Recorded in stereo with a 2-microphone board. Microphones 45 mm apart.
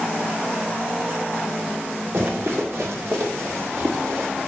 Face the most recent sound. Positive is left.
turn(degrees=-80)